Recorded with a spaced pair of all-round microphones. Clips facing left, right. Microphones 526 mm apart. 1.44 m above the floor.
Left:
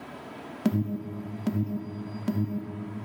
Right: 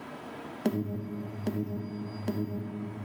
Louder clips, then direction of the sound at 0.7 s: Left 3 dB; 30° left (ahead or behind).